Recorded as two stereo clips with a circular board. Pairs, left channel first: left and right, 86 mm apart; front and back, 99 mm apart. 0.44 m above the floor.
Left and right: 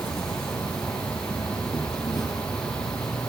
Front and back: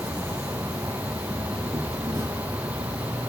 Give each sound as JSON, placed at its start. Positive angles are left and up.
{"t": 0.0, "sound": "an insect", "azimuth_deg": 125, "distance_m": 2.5}